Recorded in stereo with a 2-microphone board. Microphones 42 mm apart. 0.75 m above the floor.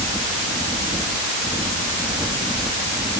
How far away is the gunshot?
I don't hear a gunshot.